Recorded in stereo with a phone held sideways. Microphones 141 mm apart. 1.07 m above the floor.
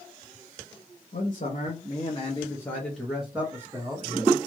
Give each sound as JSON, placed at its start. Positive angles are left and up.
{"t": 1.1, "sound": "a man speaking", "side_deg": 65, "distance_m": 1.2}